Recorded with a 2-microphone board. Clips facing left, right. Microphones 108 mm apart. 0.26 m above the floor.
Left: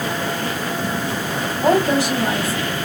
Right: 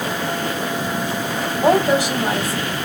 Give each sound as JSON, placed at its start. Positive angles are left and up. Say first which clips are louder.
{"t": 1.6, "sound": "a woman speaking", "louder": "right 1 dB", "side_deg": -15, "distance_m": 1.5}